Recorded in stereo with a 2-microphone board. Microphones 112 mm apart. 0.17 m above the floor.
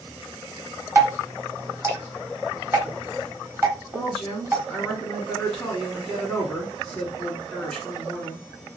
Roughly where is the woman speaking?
Centre.